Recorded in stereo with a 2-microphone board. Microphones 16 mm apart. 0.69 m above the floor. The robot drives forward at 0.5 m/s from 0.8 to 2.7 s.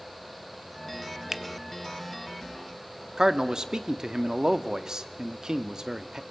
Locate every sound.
1.3 s a finger snap: 20° right (ahead or behind), 0.7 m
3.2 s a man speaking: 45° right (ahead or behind), 0.9 m